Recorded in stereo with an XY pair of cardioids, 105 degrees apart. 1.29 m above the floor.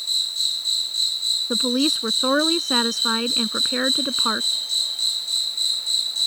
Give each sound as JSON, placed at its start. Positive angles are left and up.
{"t": 0.0, "sound": "an insect", "azimuth_deg": 0}
{"t": 1.5, "sound": "a woman speaking", "azimuth_deg": 0}